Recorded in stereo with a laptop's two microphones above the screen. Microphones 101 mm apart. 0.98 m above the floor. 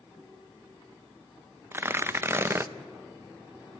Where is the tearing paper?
20° right (ahead or behind), 0.6 m.